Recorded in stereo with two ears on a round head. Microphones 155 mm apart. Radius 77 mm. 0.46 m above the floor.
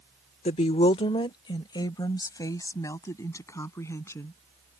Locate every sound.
0.5 s a woman speaking: 35° left (ahead or behind); by 4.4 s 15° left (ahead or behind)